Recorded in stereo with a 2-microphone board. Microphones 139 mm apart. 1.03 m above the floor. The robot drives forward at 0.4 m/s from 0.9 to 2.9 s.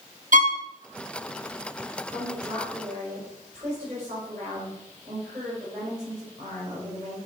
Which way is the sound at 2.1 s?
70° right (ahead or behind).